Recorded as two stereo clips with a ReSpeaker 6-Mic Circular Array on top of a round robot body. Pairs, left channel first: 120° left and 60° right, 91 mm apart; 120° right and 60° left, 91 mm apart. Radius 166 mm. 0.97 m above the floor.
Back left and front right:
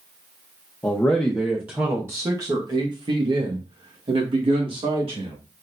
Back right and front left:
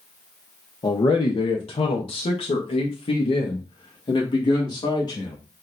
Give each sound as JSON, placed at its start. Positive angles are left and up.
{"t": 0.8, "sound": "a man speaking", "azimuth_deg": -165, "distance_m": 0.9}